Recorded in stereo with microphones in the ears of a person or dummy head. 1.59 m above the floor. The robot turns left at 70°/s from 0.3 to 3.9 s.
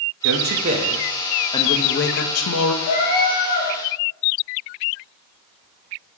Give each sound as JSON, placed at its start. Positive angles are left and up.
{"t": 0.2, "sound": "a man speaking", "azimuth_deg": -115, "distance_m": 0.6}
{"t": 2.8, "sound": "a cat meowing", "azimuth_deg": 100, "distance_m": 1.2}